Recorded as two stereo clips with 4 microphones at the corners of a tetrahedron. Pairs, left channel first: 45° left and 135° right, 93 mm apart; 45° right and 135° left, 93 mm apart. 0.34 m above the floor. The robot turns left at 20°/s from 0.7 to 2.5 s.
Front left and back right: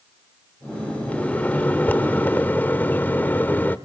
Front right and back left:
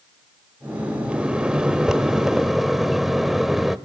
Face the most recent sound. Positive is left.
turn(degrees=55)